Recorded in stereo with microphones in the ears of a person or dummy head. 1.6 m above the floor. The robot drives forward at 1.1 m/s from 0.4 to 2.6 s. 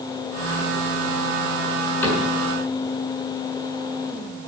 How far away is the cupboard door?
About 6.5 m.